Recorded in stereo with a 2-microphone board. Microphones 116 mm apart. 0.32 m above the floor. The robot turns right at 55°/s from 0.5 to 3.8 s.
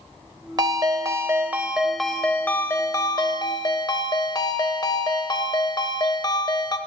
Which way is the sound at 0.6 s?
80° right.